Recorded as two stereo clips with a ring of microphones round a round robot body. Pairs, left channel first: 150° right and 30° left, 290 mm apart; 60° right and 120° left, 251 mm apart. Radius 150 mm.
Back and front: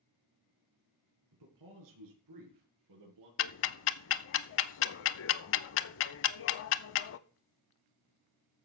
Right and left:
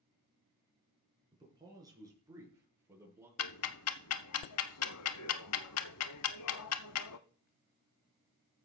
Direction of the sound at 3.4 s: 105° right.